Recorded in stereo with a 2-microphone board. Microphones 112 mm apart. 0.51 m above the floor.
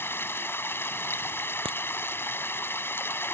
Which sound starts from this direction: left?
Running water, at 0.0 s.